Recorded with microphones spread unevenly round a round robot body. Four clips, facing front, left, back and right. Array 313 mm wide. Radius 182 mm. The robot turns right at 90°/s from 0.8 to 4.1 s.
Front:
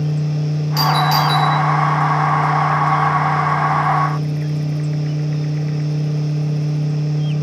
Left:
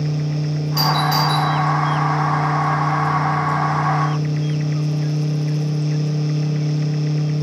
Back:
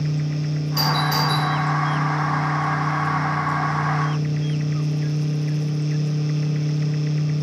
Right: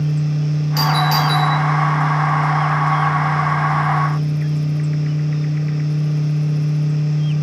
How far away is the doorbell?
About 2.5 m.